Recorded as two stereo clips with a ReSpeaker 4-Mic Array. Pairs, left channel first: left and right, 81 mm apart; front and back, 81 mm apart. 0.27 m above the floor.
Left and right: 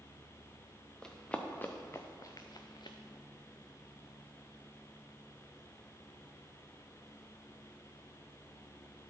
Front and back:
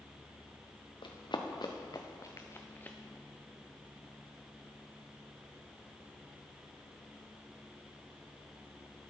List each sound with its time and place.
1.0 s running footsteps: 10° left, 1.4 m; by 3.0 s 70° left, 1.1 m